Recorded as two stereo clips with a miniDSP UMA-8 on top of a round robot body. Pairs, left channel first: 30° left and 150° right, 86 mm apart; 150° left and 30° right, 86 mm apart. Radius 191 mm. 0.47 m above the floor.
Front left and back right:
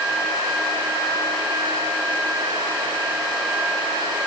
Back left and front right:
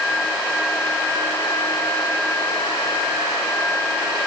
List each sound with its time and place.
Only background noise.